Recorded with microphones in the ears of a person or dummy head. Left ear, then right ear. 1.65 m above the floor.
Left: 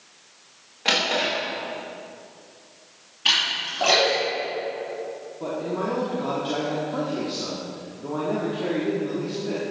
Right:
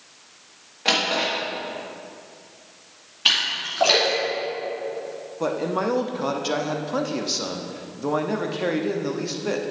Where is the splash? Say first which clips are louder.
Right 1 dB; 25° right (ahead or behind), 2.5 m.